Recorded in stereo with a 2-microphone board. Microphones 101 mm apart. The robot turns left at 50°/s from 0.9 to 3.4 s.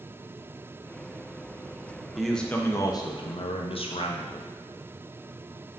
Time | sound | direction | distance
2.2 | a man speaking | 175° right | 0.5 m